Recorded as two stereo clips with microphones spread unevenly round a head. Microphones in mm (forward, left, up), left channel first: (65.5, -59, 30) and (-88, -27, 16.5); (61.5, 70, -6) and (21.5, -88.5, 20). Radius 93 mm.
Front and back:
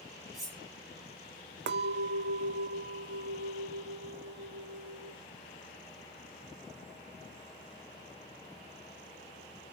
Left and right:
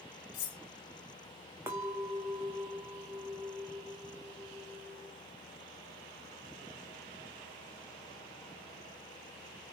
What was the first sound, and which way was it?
Cutlery clinking, 80° left.